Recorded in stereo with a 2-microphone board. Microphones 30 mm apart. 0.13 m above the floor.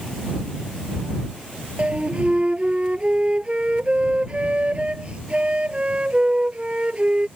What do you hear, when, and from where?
1.8 s a flute: 40° right (ahead or behind)